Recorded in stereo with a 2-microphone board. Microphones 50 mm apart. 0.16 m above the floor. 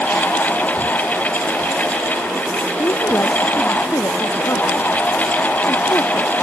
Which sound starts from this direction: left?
A woman speaking, at 2.8 s.